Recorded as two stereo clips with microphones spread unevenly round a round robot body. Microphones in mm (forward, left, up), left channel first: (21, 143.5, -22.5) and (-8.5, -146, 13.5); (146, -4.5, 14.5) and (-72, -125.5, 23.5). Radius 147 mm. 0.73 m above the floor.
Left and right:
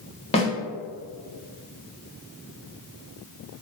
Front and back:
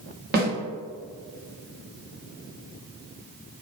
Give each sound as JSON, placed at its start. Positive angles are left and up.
{"t": 0.3, "sound": "a snare drum", "azimuth_deg": 150, "distance_m": 0.8}